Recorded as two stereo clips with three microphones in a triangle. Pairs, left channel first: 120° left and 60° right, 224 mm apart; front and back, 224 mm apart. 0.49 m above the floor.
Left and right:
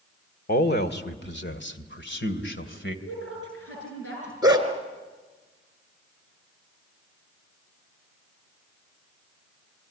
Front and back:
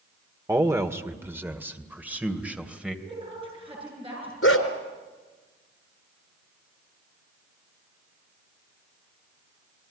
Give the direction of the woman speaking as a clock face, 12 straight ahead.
8 o'clock.